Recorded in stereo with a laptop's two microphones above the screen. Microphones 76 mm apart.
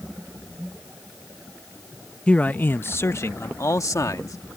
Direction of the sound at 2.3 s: 15° left (ahead or behind).